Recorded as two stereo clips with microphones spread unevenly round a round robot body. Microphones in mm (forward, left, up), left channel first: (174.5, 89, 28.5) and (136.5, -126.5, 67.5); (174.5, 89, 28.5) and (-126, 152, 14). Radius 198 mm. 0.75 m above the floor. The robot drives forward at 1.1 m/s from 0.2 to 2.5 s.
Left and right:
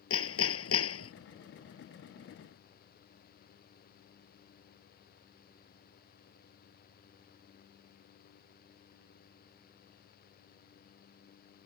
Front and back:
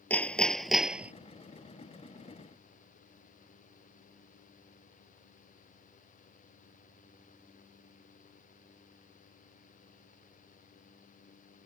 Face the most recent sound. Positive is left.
turn(degrees=100)